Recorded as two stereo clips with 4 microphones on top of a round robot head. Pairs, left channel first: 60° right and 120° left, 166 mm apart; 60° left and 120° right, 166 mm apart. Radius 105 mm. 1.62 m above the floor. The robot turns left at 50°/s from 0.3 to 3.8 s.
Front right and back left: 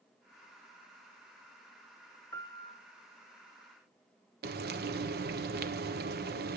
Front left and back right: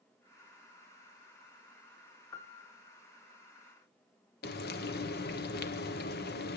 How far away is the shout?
No shout in this recording.